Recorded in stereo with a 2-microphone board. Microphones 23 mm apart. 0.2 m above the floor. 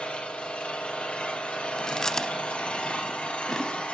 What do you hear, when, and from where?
0.0 s an engine running: 60° left (ahead or behind), 3 m
1.8 s chewing: 30° left (ahead or behind), 0.6 m